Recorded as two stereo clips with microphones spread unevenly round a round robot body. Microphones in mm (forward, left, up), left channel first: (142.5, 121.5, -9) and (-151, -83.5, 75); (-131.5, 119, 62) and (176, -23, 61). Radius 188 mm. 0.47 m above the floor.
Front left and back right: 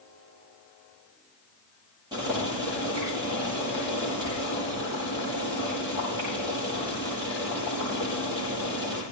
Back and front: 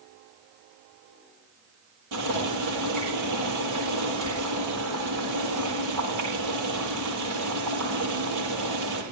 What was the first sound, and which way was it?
Boiling, 65° right.